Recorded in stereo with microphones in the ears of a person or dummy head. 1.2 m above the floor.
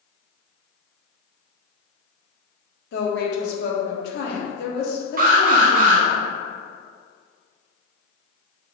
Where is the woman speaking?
65° left (ahead or behind), 1.0 m.